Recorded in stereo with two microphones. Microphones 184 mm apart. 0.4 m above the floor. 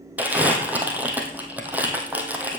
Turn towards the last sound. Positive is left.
turn(degrees=-10)  # may be behind; listen again after turning